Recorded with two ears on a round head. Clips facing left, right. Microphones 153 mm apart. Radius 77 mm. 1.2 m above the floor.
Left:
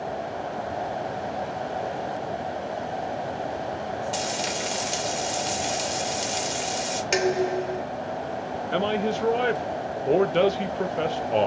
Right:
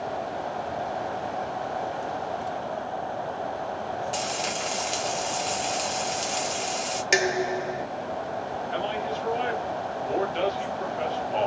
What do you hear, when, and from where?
4.1 s frying: 10° left (ahead or behind), 1.0 m
7.1 s dishes clattering: 10° right (ahead or behind), 0.5 m
8.7 s a man speaking: 60° left (ahead or behind), 0.8 m